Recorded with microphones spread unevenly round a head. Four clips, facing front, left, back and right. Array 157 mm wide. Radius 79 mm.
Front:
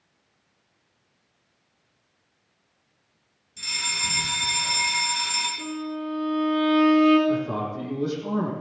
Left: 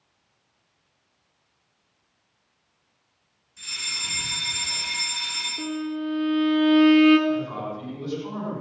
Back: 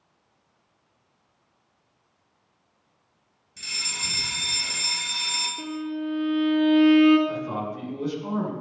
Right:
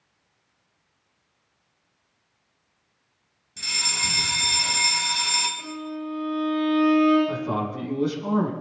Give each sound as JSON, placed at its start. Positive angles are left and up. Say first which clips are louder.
{"t": 3.6, "sound": "a fire alarm", "louder": "right 7 dB, front 5 dB", "azimuth_deg": -100, "distance_m": 4.0}
{"t": 5.6, "sound": "a violin", "louder": "left 4 dB, back 1 dB", "azimuth_deg": 115, "distance_m": 3.0}
{"t": 7.3, "sound": "a man speaking", "louder": "even, front 4 dB", "azimuth_deg": -85, "distance_m": 7.0}